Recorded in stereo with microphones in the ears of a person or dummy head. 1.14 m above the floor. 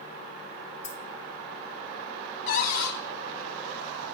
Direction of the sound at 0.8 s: 40° left (ahead or behind).